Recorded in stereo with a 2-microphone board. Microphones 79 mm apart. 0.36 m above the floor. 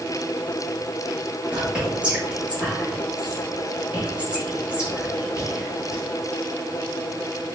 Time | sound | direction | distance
1.5 | whispering | 15° right (ahead or behind) | 1.4 m